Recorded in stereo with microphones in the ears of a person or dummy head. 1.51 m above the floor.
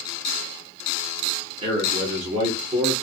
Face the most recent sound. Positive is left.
turn(degrees=-30)  # may be behind; listen again after turning